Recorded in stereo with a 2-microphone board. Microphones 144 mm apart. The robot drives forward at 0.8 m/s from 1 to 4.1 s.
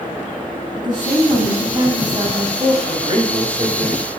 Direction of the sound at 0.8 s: 35° right (ahead or behind).